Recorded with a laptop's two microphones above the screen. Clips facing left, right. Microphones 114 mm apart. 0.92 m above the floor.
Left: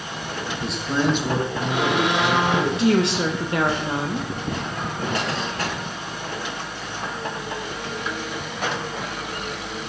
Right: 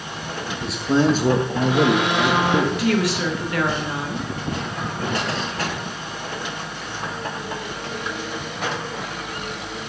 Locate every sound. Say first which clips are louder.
0.6 s a man speaking: right 5 dB; 5° left (ahead or behind), 0.6 m; by 2.9 s 85° right, 1.8 m
2.7 s a woman speaking: left 2 dB; 25° left (ahead or behind), 0.9 m